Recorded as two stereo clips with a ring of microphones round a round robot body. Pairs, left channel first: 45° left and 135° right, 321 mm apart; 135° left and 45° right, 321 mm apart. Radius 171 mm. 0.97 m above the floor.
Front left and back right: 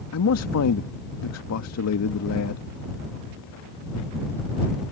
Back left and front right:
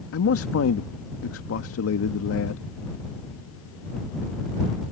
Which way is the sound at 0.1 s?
85° left.